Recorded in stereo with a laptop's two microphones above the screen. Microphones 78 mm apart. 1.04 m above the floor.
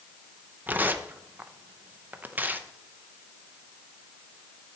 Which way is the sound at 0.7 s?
25° right (ahead or behind).